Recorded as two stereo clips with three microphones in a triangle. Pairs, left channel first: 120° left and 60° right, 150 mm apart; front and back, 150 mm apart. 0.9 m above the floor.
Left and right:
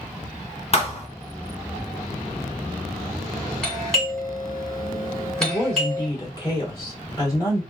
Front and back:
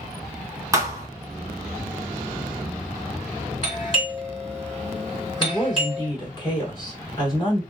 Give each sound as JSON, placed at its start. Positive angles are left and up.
{"t": 0.7, "sound": "a thud", "azimuth_deg": 125, "distance_m": 0.9}
{"t": 3.6, "sound": "a doorbell", "azimuth_deg": 35, "distance_m": 1.6}
{"t": 5.4, "sound": "a woman speaking", "azimuth_deg": 60, "distance_m": 1.7}